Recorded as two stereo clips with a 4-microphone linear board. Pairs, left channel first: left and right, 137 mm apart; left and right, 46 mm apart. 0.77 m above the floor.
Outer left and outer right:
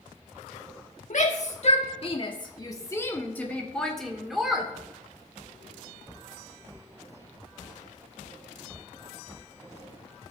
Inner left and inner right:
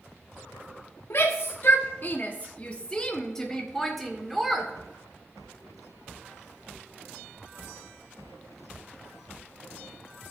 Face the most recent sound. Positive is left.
turn(degrees=-5)  # may be behind; listen again after turning